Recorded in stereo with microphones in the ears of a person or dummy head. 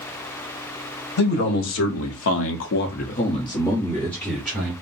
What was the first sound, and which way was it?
A man speaking, 60° left (ahead or behind).